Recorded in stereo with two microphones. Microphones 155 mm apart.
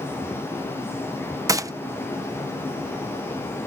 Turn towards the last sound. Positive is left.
turn(degrees=-20)  # may be behind; listen again after turning